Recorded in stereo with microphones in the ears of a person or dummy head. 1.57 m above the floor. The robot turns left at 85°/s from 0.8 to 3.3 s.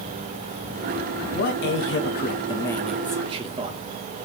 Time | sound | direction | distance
1.3 | a man speaking | 130° left | 1.3 m